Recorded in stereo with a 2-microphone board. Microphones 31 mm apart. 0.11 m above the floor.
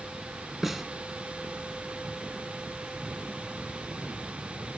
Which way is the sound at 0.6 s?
5° right (ahead or behind).